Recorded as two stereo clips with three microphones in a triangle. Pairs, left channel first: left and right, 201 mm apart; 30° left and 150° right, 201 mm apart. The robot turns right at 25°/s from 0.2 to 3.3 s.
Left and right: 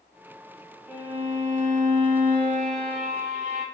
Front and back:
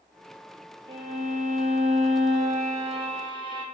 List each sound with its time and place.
0.9 s a violin: 165° right, 0.7 m; by 3.6 s 105° right, 0.7 m